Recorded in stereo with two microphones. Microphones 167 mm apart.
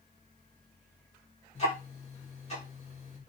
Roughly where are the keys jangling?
I don't hear keys jangling.